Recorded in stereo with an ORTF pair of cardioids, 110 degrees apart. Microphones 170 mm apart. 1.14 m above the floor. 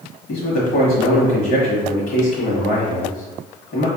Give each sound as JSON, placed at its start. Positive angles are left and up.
{"t": 0.3, "sound": "a man speaking", "azimuth_deg": 55, "distance_m": 1.1}